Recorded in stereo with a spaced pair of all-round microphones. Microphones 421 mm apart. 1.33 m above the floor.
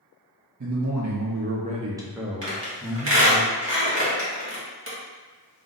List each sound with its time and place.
0.6 s a man speaking: 45° right (ahead or behind), 0.6 m; by 3.4 s 15° left (ahead or behind), 1.2 m
2.4 s a squeak: 30° right (ahead or behind), 1.4 m